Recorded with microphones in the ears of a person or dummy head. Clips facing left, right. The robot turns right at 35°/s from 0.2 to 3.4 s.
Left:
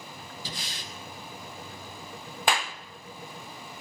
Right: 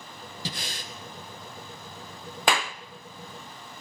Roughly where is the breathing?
Right.